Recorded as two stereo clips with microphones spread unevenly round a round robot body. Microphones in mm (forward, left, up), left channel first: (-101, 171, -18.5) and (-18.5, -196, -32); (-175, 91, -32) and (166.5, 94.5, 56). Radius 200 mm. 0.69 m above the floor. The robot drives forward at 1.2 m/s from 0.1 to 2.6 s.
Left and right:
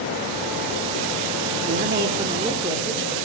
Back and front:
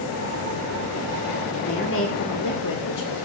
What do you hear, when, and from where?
1.7 s a woman speaking: 125° right, 1.3 m; by 3.1 s 150° right, 2 m